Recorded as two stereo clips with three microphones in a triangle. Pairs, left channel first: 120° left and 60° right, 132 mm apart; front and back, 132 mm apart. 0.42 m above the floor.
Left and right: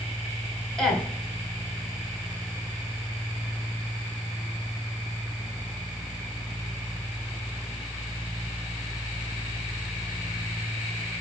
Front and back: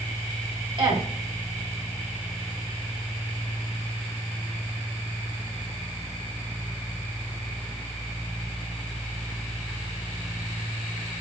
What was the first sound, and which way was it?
A woman speaking, 155° right.